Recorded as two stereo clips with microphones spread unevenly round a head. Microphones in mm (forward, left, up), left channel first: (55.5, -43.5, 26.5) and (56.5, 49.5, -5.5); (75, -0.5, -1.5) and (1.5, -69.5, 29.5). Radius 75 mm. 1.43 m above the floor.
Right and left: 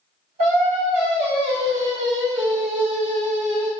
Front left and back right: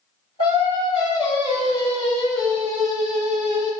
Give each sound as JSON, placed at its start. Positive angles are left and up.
{"t": 0.4, "sound": "singing", "azimuth_deg": 110, "distance_m": 1.1}